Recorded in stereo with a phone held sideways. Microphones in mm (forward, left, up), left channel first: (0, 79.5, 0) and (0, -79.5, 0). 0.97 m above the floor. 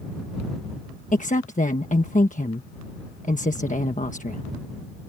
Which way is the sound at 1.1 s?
50° left (ahead or behind).